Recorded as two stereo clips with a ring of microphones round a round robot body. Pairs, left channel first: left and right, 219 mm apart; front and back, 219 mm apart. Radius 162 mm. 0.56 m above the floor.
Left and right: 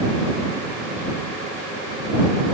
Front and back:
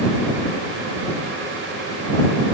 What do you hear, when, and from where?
Only background noise.